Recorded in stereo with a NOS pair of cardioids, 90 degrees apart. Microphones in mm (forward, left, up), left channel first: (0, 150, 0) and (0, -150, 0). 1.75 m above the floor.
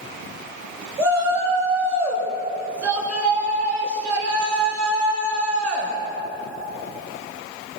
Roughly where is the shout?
Ahead right.